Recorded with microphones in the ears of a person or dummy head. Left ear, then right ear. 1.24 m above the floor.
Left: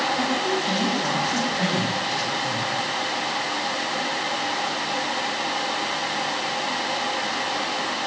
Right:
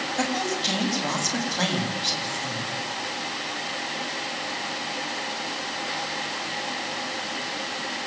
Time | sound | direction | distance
0.2 | a woman speaking | 90° right | 8 m